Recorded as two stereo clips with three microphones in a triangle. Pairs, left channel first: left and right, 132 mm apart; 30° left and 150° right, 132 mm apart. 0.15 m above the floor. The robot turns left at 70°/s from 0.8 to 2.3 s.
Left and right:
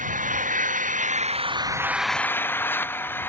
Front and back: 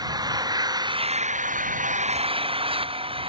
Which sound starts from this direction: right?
An engine running, at 0.0 s.